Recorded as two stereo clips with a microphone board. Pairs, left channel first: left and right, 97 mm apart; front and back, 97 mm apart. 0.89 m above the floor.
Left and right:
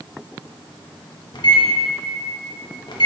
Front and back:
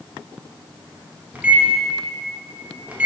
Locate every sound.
1.3 s a microwave: 110° left, 0.8 m